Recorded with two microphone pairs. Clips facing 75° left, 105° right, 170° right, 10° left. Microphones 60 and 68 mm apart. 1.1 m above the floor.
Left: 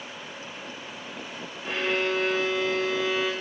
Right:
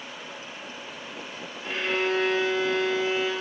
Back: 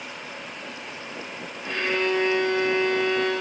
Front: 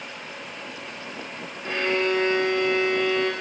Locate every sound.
1.6 s a violin: 25° right, 0.7 m